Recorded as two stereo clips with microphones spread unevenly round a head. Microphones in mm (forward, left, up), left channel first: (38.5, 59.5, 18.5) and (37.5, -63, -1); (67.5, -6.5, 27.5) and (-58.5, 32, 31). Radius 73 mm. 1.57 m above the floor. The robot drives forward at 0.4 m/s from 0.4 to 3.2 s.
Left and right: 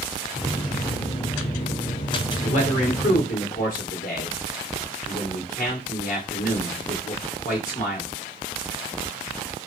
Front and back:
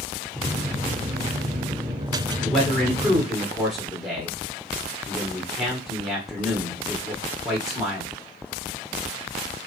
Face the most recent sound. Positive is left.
turn(degrees=75)